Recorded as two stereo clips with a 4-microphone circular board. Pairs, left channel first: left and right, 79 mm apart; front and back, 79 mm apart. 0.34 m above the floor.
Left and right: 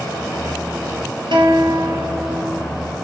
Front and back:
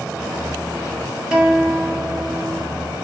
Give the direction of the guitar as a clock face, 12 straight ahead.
3 o'clock.